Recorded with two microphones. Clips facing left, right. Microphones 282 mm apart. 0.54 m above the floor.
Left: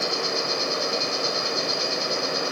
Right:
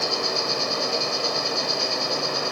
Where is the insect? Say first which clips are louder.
Even; 20° left (ahead or behind), 0.9 m.